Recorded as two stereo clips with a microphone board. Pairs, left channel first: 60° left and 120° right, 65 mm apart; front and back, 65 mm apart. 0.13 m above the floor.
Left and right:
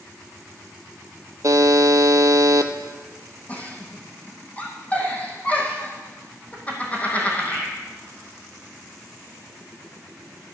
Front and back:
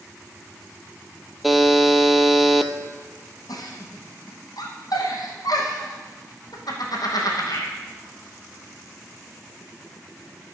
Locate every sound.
1.4 s a buzzer: 90° right, 0.7 m
3.5 s a giggle: 5° right, 2.5 m